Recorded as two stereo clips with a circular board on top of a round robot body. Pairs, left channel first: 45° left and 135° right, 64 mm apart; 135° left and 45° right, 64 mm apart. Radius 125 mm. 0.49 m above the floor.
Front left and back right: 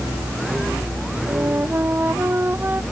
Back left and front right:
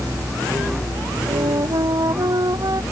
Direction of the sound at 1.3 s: 75° right.